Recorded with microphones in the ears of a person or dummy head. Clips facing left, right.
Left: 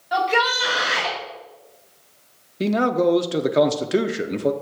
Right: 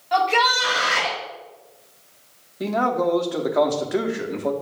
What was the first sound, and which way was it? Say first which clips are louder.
A shout: right 1 dB; 10° left (ahead or behind).